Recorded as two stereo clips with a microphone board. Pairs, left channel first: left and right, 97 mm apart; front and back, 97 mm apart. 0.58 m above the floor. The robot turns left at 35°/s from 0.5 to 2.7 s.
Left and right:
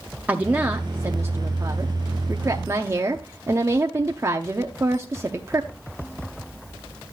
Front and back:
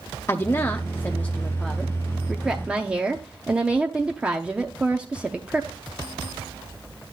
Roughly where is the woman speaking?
Ahead right.